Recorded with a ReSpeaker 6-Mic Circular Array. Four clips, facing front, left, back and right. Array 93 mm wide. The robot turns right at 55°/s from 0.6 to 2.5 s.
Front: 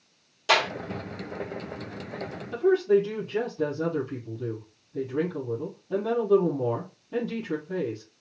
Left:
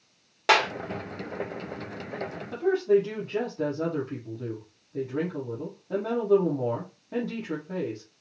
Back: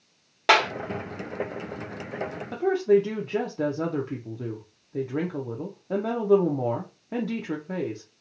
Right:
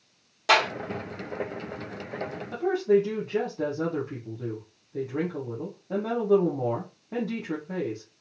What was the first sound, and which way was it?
A clap, 155° left.